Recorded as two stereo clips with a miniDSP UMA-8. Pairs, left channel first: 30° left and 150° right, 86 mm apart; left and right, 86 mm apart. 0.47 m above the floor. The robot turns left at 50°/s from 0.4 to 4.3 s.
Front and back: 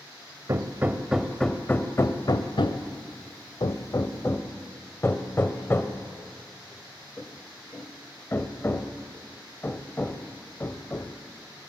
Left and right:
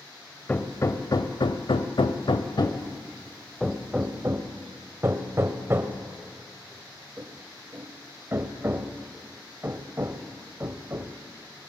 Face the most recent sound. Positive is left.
turn(degrees=-30)